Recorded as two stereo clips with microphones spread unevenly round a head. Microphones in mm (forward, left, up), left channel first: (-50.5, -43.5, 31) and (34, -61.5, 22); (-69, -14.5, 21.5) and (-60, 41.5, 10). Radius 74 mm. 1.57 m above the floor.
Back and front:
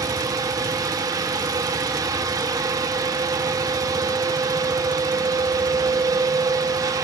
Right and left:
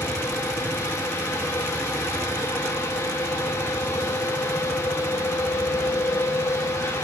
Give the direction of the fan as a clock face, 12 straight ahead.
1 o'clock.